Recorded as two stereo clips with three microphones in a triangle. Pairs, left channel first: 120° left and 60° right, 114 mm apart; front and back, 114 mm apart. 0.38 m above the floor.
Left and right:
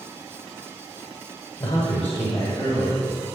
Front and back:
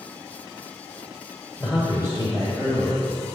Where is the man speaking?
100° left, 1.4 m; by 3.4 s 155° left, 2 m.